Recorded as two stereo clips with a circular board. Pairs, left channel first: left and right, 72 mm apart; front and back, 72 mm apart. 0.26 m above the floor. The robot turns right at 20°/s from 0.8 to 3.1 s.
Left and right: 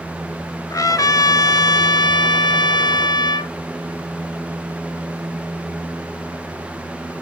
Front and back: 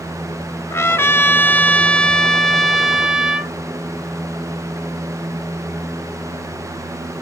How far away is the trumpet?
About 0.8 m.